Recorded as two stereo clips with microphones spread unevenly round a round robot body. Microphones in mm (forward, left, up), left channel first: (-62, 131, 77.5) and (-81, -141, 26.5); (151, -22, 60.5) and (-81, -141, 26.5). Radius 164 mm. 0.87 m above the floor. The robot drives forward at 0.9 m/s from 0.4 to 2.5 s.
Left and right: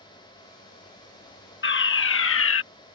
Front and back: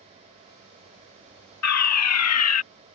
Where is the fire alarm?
30° left; by 2.6 s 45° left.